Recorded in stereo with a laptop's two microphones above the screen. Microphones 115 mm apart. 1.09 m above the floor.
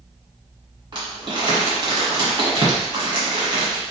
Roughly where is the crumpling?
Right.